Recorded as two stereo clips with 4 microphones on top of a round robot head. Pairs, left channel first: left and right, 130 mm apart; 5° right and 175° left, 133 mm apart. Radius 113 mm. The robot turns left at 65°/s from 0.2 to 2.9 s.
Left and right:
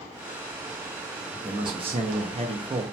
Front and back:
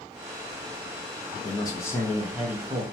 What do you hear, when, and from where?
1.4 s a man speaking: 45° right, 0.6 m; by 2.8 s 135° right, 0.6 m